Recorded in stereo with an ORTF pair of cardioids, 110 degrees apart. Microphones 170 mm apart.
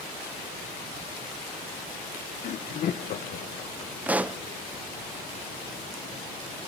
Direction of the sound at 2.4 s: 45° left.